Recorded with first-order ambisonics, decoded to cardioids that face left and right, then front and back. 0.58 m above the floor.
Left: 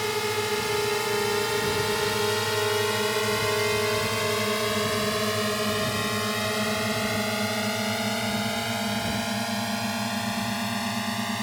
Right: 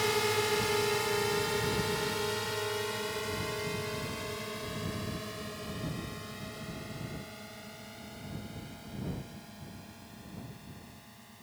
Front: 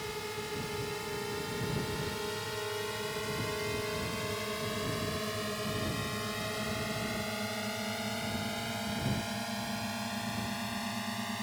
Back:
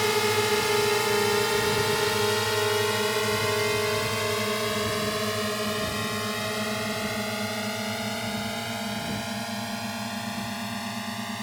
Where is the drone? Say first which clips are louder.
Left 3 dB, back 15 dB; 170° left; by 11.4 s 105° left.